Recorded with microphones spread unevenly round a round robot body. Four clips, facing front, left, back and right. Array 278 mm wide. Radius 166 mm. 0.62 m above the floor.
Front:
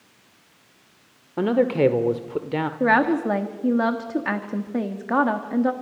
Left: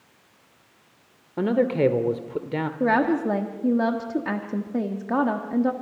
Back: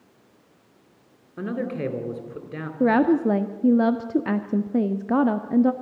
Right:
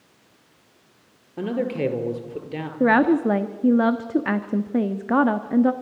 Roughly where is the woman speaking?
Behind right.